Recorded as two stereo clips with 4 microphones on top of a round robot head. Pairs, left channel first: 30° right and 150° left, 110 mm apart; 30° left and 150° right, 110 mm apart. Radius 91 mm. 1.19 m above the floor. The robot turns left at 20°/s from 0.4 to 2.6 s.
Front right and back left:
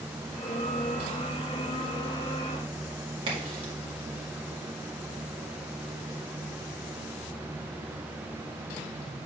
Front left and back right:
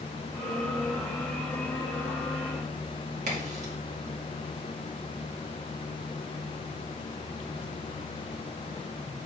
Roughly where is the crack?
Behind.